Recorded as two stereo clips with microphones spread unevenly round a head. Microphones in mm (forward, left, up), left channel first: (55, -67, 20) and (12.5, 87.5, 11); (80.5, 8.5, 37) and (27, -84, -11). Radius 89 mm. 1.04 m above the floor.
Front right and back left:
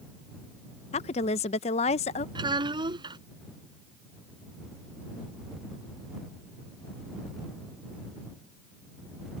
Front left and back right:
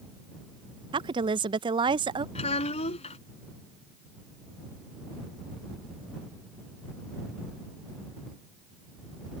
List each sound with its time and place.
0.9 s a woman speaking: 125° right
2.4 s a child speaking: 45° left